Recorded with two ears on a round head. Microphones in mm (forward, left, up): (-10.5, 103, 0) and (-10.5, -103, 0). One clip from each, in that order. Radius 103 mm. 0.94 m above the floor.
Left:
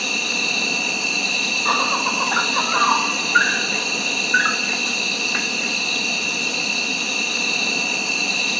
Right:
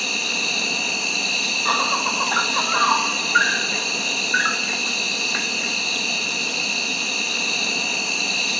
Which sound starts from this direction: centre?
An insect, at 0.0 s.